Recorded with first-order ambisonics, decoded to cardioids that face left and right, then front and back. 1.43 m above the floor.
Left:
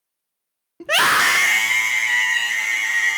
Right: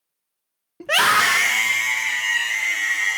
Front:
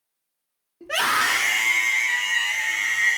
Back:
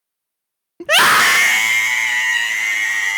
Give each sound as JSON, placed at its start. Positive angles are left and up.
{"t": 0.8, "sound": "a scream", "azimuth_deg": 180, "distance_m": 0.6}